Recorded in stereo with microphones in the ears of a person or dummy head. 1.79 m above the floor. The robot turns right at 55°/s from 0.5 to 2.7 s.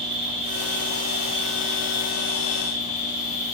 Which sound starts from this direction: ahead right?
An insect, at 0.0 s.